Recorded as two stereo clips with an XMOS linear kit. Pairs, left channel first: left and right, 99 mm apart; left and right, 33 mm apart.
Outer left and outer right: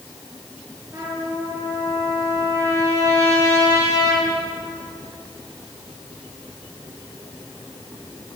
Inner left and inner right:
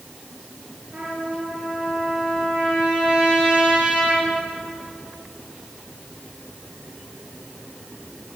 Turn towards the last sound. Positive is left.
turn(degrees=-30)  # may be behind; listen again after turning